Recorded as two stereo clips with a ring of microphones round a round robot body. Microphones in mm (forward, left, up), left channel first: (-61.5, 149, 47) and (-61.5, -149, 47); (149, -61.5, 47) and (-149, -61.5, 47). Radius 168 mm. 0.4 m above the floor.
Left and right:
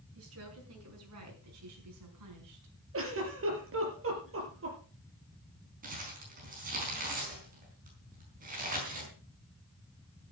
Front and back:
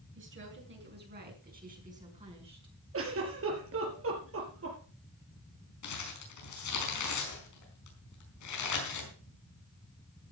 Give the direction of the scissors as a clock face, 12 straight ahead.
No scissors in this recording.